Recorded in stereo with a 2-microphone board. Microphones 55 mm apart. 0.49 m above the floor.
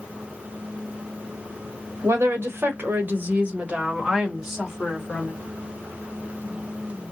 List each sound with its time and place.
2.0 s a woman speaking: 55° right (ahead or behind), 1.8 m; by 5.3 s centre (ahead or behind), 2 m